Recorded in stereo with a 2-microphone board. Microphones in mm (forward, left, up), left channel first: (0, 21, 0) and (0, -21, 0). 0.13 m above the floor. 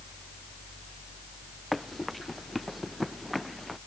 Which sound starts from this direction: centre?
Running footsteps, at 1.7 s.